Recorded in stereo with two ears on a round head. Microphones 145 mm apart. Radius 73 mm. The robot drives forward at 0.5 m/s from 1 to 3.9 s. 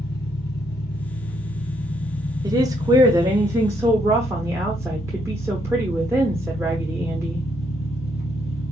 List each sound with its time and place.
0.0 s an engine running: 75° left (ahead or behind), 1.3 m; by 8.7 s 50° left (ahead or behind), 1.7 m
2.4 s a woman speaking: 25° right (ahead or behind), 0.7 m; by 7.5 s 20° right (ahead or behind), 0.9 m